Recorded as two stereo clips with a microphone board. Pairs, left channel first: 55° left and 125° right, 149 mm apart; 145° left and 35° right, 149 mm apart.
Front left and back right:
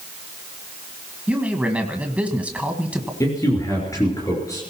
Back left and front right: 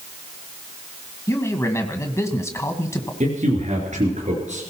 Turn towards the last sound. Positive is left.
turn(degrees=-10)